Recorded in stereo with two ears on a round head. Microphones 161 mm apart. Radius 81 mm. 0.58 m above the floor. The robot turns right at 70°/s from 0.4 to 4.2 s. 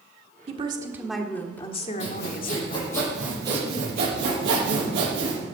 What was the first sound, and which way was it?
A woman speaking, 45° right.